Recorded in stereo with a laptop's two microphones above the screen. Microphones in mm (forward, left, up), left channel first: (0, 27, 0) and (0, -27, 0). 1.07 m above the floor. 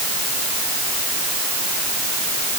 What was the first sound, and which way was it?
Only background noise.